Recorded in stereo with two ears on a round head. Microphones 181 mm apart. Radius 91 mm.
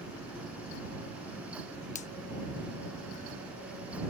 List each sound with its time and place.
1.9 s a finger snap: 35° left (ahead or behind)